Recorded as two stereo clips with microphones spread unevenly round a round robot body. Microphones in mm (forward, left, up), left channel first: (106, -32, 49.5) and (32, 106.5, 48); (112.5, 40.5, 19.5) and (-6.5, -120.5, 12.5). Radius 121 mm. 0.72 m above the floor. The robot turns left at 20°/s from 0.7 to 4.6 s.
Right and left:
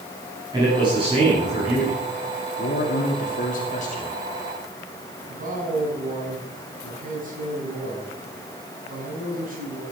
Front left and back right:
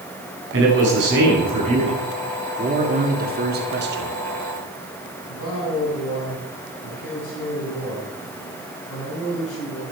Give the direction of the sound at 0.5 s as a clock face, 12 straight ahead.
6 o'clock.